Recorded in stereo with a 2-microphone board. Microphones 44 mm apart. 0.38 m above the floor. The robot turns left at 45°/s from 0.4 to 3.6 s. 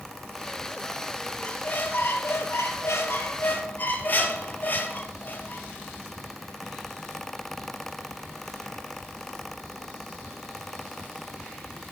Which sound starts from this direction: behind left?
A squeak, at 1.4 s.